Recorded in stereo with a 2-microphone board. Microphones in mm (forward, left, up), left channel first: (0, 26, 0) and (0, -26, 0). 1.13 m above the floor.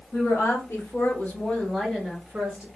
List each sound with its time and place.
0.1 s a woman speaking: 65° left (ahead or behind), 1.3 m; by 2.7 s 15° right (ahead or behind), 1.2 m